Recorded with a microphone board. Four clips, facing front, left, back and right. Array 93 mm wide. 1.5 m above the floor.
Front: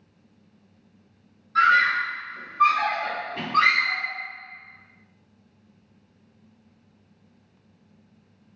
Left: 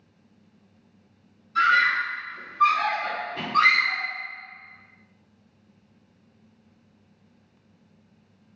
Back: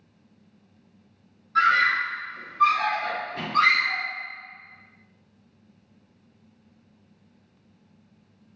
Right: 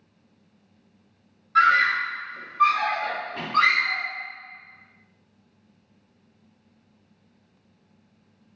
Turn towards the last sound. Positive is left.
turn(degrees=-50)